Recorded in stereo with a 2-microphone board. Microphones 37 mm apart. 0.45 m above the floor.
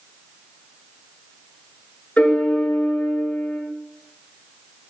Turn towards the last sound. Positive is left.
turn(degrees=40)  # may be behind; listen again after turning